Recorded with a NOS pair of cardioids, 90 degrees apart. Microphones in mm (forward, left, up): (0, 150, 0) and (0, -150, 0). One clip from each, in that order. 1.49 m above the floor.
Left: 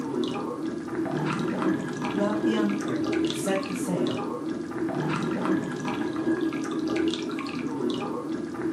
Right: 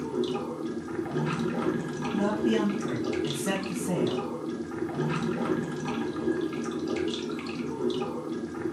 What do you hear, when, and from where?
0.0 s running water: 30° left, 0.8 m
2.1 s a man speaking: 15° left, 1.6 m